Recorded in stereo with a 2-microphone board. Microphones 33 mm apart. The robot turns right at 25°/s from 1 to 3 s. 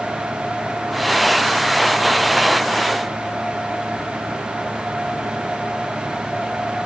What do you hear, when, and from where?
Only background noise.